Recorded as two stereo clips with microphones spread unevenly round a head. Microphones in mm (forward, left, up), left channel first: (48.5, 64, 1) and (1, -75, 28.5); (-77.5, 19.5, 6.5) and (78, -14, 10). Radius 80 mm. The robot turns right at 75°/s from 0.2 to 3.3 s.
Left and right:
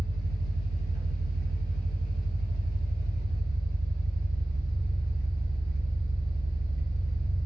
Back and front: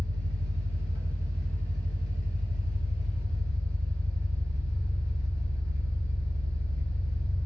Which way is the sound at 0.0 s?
15° right.